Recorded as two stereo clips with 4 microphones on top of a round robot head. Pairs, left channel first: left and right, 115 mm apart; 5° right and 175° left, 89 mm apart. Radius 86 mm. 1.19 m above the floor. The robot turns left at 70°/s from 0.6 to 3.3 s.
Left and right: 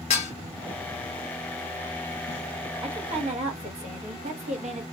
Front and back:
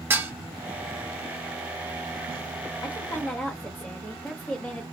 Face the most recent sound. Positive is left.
turn(degrees=-80)